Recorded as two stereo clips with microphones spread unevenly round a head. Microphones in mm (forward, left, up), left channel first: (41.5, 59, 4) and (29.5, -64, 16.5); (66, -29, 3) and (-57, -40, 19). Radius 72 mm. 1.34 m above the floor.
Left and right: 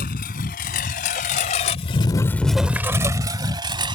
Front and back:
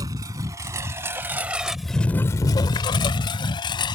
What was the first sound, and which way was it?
A lawn mower, 120° left.